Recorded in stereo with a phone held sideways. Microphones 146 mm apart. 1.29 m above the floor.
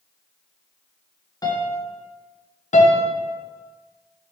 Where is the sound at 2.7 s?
55° left (ahead or behind), 0.6 m.